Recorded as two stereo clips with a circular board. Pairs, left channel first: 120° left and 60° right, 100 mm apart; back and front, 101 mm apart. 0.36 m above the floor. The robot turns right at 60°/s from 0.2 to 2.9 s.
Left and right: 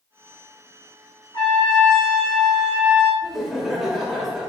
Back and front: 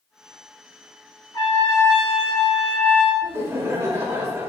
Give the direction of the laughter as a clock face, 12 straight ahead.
11 o'clock.